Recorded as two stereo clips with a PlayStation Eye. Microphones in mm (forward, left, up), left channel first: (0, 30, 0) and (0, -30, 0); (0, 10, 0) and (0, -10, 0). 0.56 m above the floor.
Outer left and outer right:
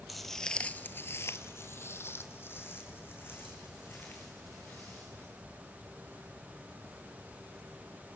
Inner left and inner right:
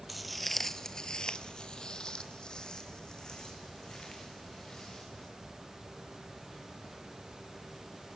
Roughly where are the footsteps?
Centre.